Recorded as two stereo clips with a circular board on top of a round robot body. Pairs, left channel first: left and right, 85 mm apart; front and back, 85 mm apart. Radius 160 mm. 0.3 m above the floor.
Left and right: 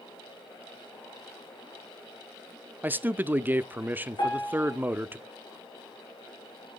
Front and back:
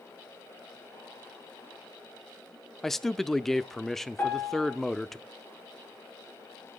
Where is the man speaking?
80° right, 0.9 m.